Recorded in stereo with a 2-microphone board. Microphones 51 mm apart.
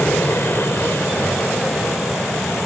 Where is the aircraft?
55° left (ahead or behind); by 2.7 s 60° left (ahead or behind).